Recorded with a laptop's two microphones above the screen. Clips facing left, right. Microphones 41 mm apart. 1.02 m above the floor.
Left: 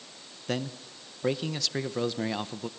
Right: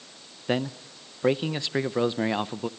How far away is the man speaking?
About 0.6 m.